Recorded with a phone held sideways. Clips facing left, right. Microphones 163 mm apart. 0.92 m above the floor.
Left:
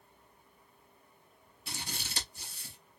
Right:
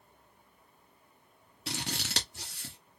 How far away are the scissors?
About 1.3 m.